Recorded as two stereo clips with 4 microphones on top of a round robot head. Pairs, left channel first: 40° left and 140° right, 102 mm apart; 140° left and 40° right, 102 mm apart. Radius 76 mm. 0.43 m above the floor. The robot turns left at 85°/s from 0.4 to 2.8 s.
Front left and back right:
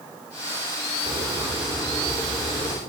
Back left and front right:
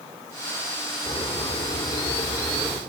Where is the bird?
175° left, 4.5 m; by 2.8 s 25° left, 4.5 m.